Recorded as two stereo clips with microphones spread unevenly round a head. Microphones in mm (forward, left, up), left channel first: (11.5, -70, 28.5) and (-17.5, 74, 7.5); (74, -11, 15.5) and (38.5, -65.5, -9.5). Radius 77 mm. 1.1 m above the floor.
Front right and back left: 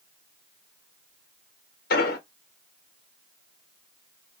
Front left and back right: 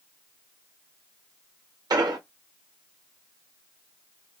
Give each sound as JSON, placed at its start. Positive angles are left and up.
{"t": 1.9, "sound": "an explosion", "azimuth_deg": -105, "distance_m": 1.1}